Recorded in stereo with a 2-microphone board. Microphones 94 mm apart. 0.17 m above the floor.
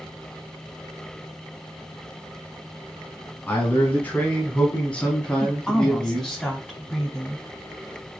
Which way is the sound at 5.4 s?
10° left (ahead or behind).